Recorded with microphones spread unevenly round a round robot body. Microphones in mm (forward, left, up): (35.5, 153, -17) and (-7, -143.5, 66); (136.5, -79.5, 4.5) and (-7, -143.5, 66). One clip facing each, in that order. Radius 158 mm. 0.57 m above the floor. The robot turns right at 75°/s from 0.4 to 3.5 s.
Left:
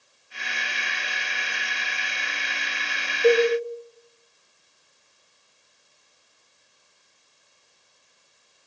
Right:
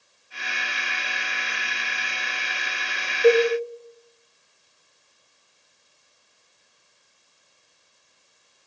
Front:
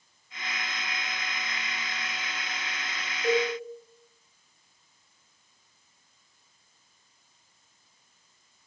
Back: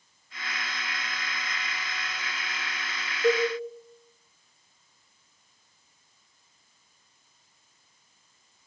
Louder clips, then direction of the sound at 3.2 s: Right 1 dB, back 2 dB; 175° right.